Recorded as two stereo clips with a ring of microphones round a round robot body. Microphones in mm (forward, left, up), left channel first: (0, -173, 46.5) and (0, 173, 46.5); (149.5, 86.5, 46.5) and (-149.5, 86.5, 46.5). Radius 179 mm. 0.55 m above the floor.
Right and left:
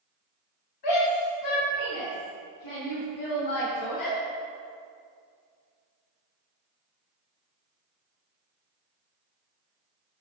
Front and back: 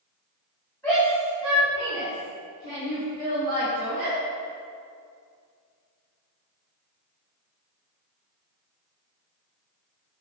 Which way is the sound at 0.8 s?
85° right.